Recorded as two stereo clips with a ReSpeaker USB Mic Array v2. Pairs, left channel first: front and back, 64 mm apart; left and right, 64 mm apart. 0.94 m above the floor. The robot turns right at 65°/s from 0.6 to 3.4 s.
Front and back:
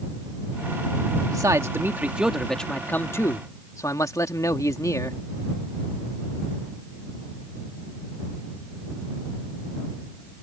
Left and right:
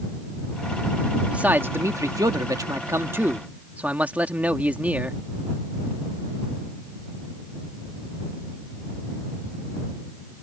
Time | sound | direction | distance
1.3 | a man speaking | 160° right | ?